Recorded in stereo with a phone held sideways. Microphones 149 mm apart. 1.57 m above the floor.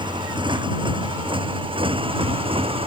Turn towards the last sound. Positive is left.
turn(degrees=-40)  # may be behind; listen again after turning